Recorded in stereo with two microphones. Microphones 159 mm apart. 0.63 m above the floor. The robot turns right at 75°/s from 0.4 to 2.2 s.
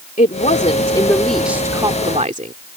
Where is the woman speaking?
105° left; by 2.5 s 120° right.